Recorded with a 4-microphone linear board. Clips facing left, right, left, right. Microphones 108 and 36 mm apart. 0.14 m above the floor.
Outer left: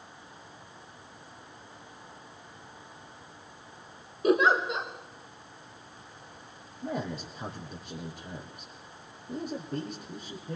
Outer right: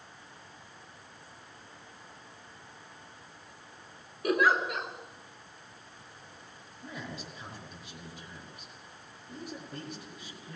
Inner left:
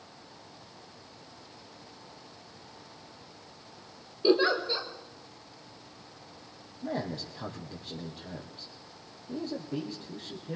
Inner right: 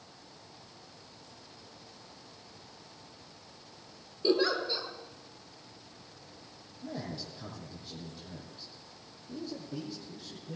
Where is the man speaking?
55° left (ahead or behind), 4.5 m.